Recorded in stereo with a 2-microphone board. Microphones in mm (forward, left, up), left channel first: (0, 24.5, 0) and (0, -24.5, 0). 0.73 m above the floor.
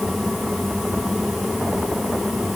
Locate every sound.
Only background noise.